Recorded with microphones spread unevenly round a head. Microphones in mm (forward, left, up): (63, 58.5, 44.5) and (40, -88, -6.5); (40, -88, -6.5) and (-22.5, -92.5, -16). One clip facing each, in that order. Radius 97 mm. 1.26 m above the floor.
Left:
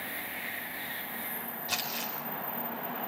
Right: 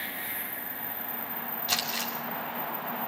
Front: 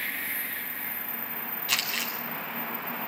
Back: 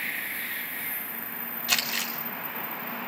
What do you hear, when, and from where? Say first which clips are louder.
1.7 s crumpling: right 3 dB, back 2 dB; 165° right, 6.5 m